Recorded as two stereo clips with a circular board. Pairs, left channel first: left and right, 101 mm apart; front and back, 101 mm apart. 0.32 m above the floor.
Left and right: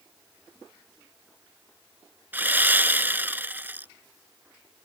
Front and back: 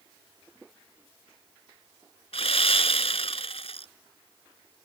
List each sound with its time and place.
2.3 s sawing: 20° right